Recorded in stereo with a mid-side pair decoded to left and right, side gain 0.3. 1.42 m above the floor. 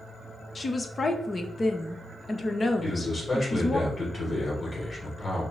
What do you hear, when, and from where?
0.6 s a woman speaking: 40° left, 0.9 m
2.8 s a man speaking: 30° left, 2.5 m